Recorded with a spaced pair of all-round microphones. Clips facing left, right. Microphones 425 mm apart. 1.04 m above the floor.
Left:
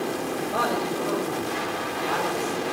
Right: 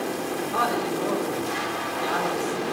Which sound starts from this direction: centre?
A man speaking, at 0.4 s.